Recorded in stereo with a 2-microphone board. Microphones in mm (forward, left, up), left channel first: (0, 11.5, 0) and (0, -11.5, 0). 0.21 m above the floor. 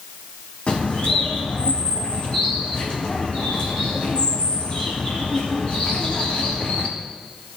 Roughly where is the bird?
Left.